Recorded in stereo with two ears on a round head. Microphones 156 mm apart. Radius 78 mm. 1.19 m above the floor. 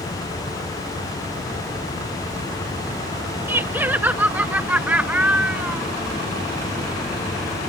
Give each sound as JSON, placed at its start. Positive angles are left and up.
{"t": 3.5, "sound": "laughter", "side_deg": -15}